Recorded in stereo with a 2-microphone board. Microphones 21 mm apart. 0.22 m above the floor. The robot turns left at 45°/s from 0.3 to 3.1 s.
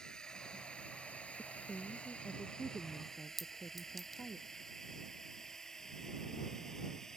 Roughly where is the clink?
Centre.